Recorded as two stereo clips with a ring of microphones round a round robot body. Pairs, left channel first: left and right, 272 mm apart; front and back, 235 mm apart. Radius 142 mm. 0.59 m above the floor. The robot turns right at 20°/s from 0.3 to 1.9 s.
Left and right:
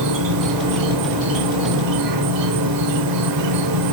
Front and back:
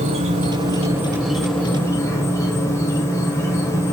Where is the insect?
110° right, 1.0 m; by 3.9 s 80° right, 1.0 m.